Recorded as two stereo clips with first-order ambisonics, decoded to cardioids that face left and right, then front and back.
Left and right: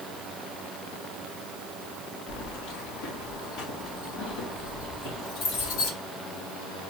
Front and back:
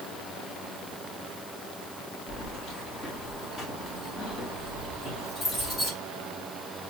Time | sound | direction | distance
2.3 | keys jangling | 60° left | 2 m